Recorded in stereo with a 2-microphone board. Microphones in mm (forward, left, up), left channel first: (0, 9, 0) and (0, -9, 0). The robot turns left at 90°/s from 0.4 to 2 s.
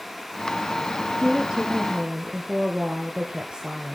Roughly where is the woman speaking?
Ahead right.